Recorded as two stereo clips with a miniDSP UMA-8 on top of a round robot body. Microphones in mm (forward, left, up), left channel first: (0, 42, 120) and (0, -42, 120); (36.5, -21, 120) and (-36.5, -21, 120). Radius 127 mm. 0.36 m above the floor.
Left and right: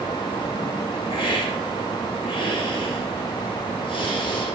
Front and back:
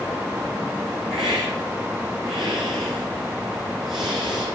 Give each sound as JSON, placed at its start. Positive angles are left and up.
{"t": 1.1, "sound": "a hiss", "azimuth_deg": 100, "distance_m": 10.0}